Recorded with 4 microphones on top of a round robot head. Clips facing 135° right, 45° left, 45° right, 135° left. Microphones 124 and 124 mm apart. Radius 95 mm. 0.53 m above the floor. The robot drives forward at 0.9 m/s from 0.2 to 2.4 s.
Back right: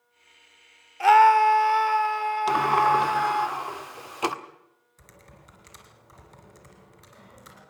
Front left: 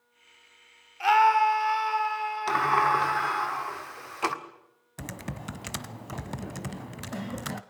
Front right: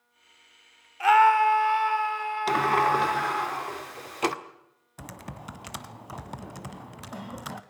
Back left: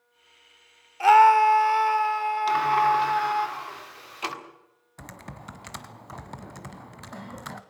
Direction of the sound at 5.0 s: 40° left.